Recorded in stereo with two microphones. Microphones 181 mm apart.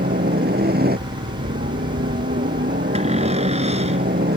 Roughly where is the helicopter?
Right.